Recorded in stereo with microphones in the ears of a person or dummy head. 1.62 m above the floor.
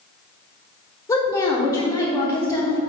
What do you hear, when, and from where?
1.1 s a woman speaking: 15° left (ahead or behind), 1.0 m